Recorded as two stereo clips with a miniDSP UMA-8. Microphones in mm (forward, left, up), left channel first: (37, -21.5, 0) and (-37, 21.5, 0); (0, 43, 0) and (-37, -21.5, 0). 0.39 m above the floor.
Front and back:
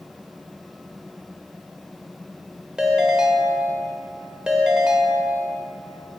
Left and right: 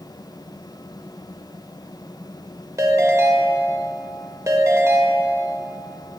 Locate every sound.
2.8 s a ringtone: 135° right, 0.7 m